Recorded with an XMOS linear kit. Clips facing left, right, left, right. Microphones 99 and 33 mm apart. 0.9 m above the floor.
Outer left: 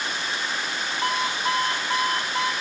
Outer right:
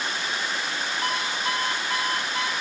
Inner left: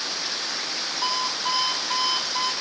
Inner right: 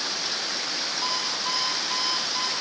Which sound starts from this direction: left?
An alarm clock, at 1.0 s.